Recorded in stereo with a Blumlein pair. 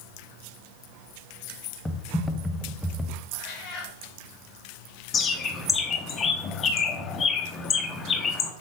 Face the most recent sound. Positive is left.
turn(degrees=20)